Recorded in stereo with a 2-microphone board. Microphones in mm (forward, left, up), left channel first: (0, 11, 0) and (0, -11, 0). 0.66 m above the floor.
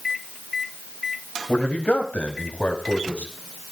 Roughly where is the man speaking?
Left.